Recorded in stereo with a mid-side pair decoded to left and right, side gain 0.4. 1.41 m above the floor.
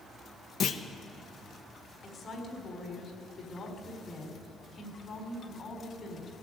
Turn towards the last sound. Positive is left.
turn(degrees=50)